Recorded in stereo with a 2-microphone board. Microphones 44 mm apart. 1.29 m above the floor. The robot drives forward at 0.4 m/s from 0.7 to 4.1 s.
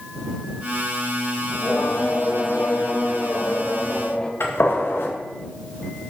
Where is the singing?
45° left (ahead or behind), 0.6 m; by 4.3 s 20° left (ahead or behind), 1.2 m.